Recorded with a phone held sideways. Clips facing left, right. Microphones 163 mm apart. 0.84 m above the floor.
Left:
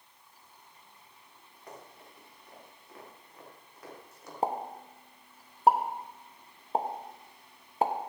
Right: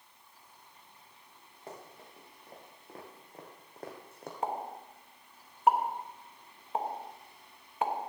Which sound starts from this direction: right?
Running footsteps, at 1.7 s.